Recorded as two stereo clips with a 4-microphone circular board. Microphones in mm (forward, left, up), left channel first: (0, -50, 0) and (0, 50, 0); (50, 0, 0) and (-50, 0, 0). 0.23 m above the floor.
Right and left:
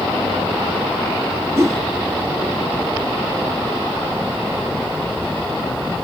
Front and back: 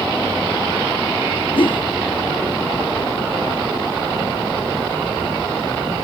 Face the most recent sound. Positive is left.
turn(degrees=30)